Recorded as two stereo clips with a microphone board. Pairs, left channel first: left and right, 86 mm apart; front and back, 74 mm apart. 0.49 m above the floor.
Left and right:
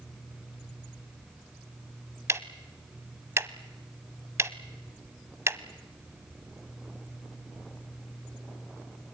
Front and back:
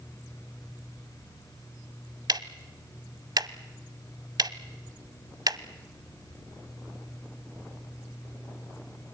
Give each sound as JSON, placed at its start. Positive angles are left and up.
{"t": 2.3, "sound": "ticking", "azimuth_deg": -150, "distance_m": 0.8}